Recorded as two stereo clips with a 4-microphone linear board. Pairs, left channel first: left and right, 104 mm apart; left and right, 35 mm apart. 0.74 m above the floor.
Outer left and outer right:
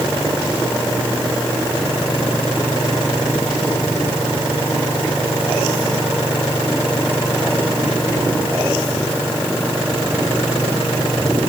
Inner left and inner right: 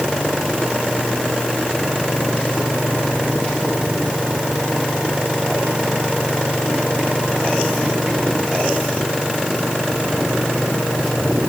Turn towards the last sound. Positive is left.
No sound to turn to.